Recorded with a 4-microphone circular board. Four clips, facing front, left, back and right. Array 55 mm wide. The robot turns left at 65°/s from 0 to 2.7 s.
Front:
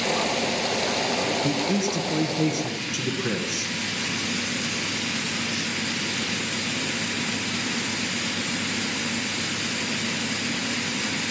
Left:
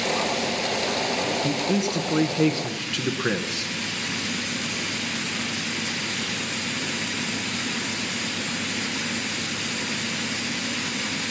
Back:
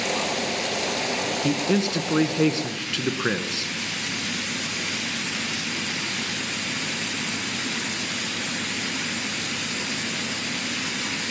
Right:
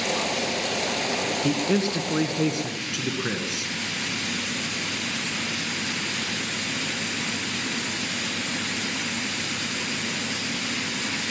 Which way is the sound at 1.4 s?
125° right.